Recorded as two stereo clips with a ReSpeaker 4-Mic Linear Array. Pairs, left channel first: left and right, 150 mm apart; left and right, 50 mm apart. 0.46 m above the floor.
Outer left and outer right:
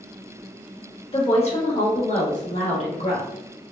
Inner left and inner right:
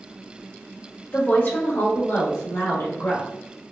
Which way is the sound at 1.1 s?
40° left (ahead or behind).